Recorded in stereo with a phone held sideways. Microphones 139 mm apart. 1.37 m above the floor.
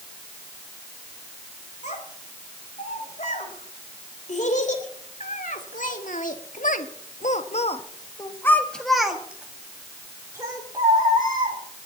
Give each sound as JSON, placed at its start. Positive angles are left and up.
{"t": 1.8, "sound": "a child speaking", "side_deg": 60, "distance_m": 5.0}